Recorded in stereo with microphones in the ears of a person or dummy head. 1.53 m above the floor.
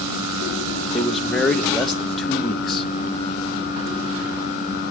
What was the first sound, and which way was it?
A man speaking, centre (ahead or behind).